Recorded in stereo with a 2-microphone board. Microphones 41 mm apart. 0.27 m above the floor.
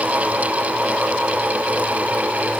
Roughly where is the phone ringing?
No phone ringing in this recording.